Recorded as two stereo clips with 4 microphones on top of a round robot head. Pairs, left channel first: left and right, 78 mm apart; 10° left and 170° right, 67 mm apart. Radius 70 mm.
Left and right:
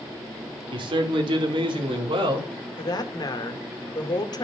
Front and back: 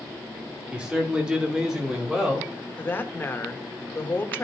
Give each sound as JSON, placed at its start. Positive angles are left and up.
{"t": 0.7, "sound": "a man speaking", "azimuth_deg": -90, "distance_m": 1.9}
{"t": 2.8, "sound": "a woman speaking", "azimuth_deg": 65, "distance_m": 1.5}